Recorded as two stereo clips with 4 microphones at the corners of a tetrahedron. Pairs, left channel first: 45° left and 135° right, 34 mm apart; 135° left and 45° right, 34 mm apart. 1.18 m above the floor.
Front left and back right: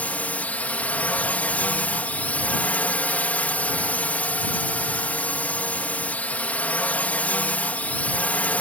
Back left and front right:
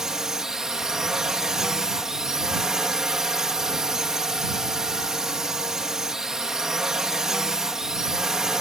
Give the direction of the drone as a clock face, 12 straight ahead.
11 o'clock.